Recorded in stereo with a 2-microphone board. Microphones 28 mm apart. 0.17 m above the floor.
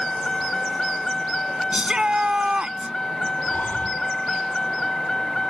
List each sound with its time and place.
0.0 s a vehicle: 15° left (ahead or behind)
1.7 s a shout: 35° right (ahead or behind)
3.5 s breathing: 70° left (ahead or behind)